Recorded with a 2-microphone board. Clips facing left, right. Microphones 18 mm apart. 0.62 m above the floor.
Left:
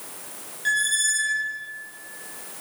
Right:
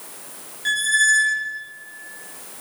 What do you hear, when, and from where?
0.7 s a squeak: 5° right (ahead or behind), 0.5 m